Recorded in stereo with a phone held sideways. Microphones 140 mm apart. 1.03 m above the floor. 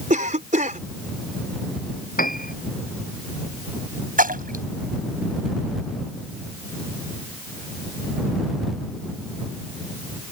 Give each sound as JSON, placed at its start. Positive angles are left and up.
{"t": 0.1, "sound": "a cough", "side_deg": -65}
{"t": 2.2, "sound": "a piano", "side_deg": 85}
{"t": 4.2, "sound": "a splash", "side_deg": -80}